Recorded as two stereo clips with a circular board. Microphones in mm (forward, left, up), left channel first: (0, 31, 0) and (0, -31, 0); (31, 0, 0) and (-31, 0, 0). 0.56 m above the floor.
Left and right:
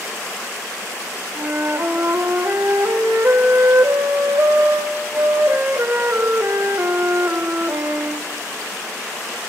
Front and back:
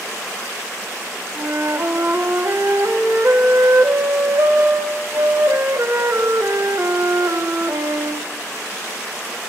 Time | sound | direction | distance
1.4 | a flute | 135° right | 0.7 m